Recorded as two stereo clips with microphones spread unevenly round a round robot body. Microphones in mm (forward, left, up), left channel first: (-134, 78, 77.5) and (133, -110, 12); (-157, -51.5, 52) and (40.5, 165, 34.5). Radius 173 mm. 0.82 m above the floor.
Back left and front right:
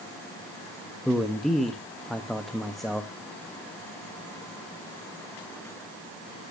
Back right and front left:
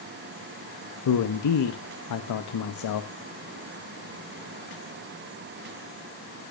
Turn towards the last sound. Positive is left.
turn(degrees=-120)